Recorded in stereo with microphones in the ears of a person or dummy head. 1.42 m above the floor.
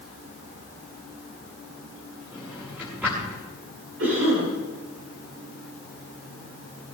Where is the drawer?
Centre (ahead or behind), 7.5 m.